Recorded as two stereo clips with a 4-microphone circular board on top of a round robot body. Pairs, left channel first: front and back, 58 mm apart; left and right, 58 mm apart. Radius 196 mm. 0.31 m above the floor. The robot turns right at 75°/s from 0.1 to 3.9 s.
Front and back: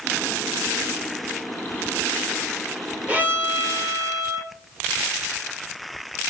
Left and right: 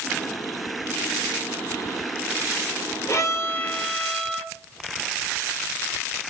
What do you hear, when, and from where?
3.1 s a violin: 110° left, 1.2 m; by 4.5 s 170° left, 1.2 m